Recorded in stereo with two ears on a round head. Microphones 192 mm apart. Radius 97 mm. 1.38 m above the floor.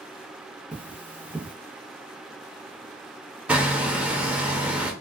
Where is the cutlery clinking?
5° right (ahead or behind), 0.7 m.